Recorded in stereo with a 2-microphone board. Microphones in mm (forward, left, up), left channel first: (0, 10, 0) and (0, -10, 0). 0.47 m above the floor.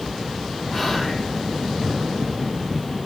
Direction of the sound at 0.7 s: Centre (ahead or behind).